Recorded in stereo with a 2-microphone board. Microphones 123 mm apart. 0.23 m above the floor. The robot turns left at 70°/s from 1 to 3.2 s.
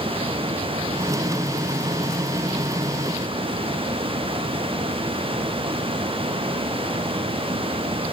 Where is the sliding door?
I don't hear a sliding door.